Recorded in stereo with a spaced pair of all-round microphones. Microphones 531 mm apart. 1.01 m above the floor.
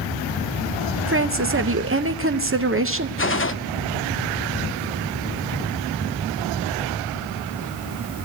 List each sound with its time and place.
1.1 s a woman speaking: 25° right (ahead or behind), 0.7 m
3.2 s a gunshot: 25° left (ahead or behind), 0.6 m